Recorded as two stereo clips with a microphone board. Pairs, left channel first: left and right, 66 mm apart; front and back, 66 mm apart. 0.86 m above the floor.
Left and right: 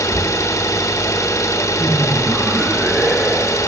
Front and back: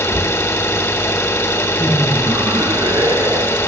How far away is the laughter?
About 0.7 m.